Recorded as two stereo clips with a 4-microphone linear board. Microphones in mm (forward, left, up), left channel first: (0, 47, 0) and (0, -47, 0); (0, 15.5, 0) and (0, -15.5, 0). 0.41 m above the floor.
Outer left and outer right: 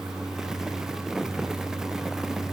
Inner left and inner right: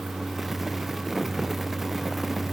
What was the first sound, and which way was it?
Only background noise.